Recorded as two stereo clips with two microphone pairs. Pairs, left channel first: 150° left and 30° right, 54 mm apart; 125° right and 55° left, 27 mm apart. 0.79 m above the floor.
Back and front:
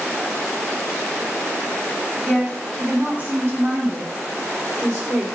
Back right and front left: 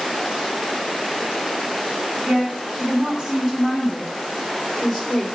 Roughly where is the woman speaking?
Ahead left.